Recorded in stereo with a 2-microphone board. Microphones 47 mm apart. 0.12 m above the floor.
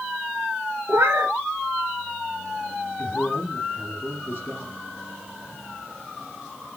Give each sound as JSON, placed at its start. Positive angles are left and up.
{"t": 0.9, "sound": "a cat meowing", "side_deg": -70, "distance_m": 0.6}
{"t": 3.0, "sound": "a man speaking", "side_deg": 45, "distance_m": 3.0}